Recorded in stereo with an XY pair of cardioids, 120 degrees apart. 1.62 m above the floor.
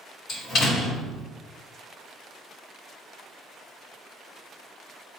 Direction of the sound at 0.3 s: 50° left.